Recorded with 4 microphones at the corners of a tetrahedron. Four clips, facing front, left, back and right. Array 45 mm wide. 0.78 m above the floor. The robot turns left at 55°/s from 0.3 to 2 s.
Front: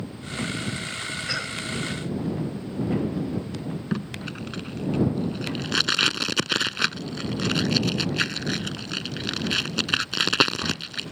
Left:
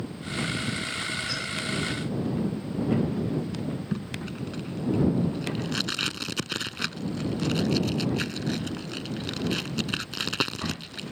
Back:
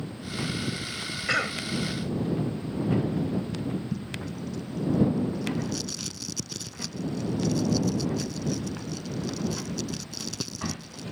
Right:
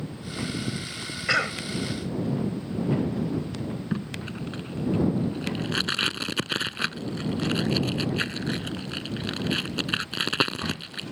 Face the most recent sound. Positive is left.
turn(degrees=-15)